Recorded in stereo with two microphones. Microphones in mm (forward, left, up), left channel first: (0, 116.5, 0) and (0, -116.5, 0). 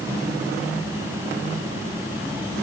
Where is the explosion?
No explosion in this recording.